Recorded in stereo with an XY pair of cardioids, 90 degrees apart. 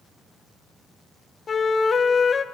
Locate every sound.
1.5 s a flute: 45° left, 0.8 m